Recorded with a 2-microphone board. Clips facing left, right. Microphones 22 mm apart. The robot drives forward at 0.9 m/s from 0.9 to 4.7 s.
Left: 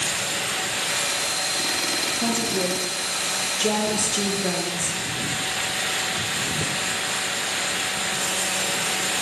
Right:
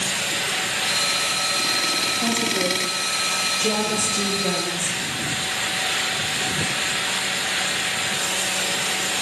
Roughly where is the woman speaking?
Left.